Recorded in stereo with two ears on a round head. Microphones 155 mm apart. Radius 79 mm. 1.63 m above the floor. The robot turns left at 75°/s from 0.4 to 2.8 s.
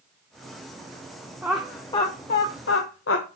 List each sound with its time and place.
1.4 s laughter: 15° right (ahead or behind), 0.8 m; by 3.4 s 80° left, 0.8 m